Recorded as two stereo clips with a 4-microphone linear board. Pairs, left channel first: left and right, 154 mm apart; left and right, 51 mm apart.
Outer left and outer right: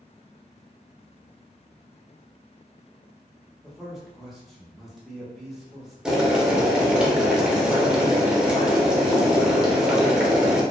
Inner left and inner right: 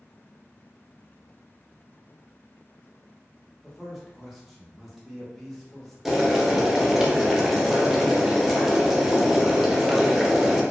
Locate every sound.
3.6 s a man speaking: centre (ahead or behind), 0.8 m
6.0 s boiling: 5° right (ahead or behind), 0.5 m